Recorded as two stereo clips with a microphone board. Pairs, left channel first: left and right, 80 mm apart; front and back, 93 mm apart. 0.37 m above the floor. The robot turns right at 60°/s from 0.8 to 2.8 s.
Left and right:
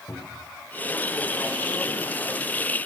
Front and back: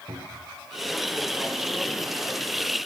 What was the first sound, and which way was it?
A cupboard door, 145° left.